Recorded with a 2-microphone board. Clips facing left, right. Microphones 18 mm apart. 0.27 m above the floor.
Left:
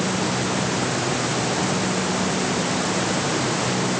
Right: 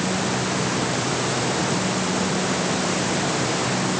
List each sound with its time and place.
Only background noise.